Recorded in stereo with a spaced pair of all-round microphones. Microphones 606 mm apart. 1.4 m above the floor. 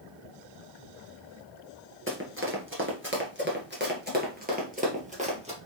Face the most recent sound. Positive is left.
turn(degrees=-10)  # may be behind; listen again after turning